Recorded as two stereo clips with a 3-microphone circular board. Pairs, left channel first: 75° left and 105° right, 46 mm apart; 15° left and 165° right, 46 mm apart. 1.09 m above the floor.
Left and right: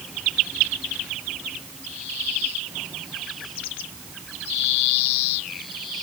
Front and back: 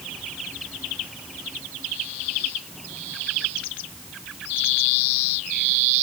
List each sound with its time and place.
Only background noise.